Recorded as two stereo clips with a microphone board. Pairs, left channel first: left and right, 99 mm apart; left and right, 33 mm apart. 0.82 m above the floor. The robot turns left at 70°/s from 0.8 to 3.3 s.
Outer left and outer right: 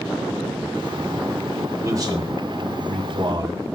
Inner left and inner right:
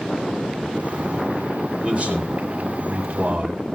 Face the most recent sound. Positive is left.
turn(degrees=-130)